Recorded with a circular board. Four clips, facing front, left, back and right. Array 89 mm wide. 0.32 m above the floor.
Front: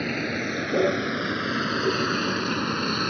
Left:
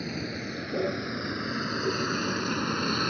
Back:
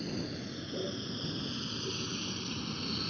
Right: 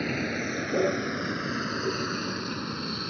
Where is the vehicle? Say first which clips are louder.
Right 4 dB, front 10 dB; 25° right; by 3.1 s 30° left.